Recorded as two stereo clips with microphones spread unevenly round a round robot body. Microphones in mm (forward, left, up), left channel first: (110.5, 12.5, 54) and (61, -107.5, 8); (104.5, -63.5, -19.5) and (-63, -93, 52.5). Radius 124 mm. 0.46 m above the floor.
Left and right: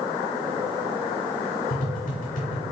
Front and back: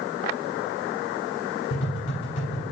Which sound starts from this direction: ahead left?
Tapping, at 1.7 s.